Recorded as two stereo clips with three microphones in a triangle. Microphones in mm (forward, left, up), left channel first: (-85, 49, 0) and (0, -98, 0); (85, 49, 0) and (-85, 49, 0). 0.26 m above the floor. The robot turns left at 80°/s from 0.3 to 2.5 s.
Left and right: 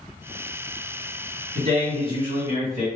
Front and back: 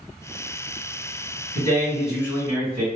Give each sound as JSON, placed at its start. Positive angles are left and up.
{"t": 1.6, "sound": "a man speaking", "azimuth_deg": -50, "distance_m": 1.6}